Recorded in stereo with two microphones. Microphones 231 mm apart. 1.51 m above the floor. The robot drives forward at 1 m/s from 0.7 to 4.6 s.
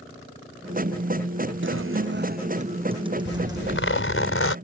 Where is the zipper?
60° left (ahead or behind); by 4.5 s 75° left (ahead or behind).